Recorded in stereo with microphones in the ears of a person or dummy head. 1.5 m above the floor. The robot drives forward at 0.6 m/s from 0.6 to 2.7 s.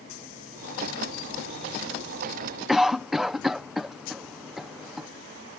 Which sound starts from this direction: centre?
A cough, at 2.7 s.